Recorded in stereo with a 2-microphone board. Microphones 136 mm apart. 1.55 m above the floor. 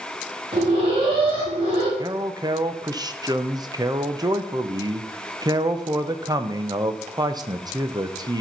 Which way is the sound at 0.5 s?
45° right (ahead or behind).